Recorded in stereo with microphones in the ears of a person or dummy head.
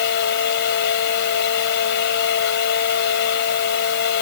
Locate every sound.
0.0 s a fan: 65° left (ahead or behind)